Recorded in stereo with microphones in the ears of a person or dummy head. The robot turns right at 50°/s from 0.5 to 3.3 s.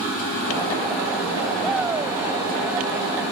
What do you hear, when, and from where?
1.6 s a shout: 175° left; by 2.2 s 155° right